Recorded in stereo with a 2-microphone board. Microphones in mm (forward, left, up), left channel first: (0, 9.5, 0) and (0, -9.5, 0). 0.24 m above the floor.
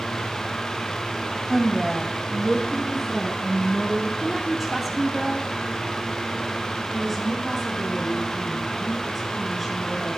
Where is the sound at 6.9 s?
5° right (ahead or behind), 4.5 m.